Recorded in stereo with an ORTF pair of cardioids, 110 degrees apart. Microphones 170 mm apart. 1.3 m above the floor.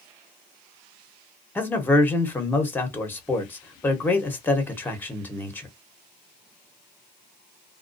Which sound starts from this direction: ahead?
A man speaking, at 1.6 s.